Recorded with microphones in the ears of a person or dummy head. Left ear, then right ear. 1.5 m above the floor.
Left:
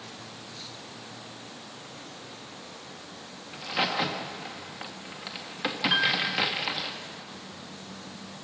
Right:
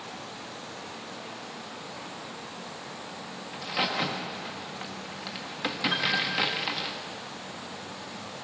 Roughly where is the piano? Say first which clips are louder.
Left 3 dB; left.